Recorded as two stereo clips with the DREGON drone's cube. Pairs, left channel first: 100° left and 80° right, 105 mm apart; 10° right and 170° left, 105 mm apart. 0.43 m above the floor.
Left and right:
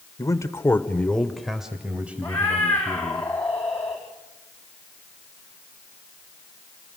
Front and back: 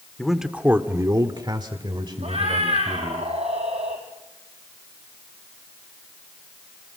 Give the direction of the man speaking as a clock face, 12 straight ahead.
10 o'clock.